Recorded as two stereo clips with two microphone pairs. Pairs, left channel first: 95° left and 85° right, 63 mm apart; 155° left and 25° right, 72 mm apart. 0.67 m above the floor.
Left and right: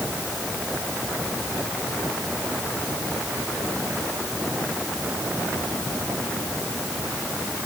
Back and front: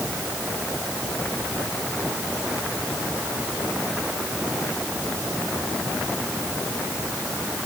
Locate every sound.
Only background noise.